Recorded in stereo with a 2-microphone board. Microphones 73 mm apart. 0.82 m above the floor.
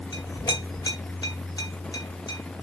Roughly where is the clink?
Left.